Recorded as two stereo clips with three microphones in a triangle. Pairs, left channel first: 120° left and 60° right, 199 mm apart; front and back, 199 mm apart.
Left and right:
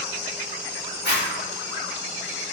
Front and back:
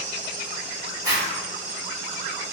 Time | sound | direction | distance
1.0 | a zipper | 115° left | 1.6 m